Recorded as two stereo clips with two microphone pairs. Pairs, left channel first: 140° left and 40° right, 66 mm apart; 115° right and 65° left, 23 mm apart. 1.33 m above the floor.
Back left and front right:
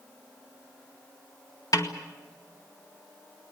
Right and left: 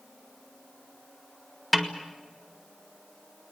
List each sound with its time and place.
1.7 s a snare drum: 160° left, 2 m